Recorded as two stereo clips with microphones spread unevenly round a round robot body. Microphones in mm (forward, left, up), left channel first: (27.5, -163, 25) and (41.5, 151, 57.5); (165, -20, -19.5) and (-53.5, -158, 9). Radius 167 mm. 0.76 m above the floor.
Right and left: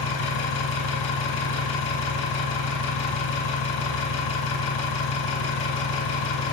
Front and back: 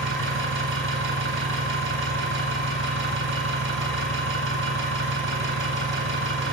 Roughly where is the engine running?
Right.